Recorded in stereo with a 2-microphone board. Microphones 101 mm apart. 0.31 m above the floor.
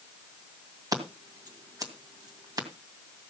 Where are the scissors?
40° right (ahead or behind), 2.5 m.